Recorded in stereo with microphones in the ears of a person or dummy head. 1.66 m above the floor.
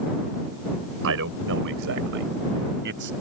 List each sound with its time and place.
1.0 s a man speaking: 70° right (ahead or behind); by 3.1 s 60° right (ahead or behind)